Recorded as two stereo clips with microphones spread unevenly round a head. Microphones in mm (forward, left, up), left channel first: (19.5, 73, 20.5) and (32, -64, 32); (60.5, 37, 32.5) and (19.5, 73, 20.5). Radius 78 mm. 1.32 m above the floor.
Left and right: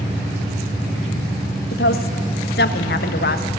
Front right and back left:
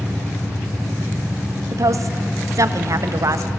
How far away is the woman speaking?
About 1.4 m.